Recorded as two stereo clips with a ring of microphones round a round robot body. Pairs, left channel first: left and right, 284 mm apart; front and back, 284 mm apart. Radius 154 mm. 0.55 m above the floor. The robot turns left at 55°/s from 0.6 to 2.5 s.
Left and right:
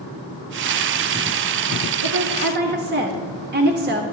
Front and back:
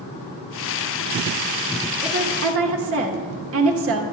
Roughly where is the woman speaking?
Behind right.